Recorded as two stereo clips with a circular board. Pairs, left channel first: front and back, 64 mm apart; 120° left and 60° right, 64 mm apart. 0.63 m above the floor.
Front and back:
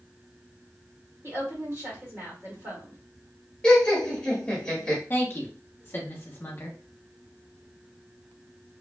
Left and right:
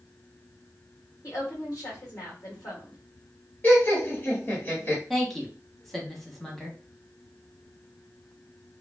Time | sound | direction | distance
1.2 | a woman speaking | 140° left | 1.6 m
3.6 | laughter | 70° left | 1.5 m
5.1 | a woman speaking | 35° left | 0.9 m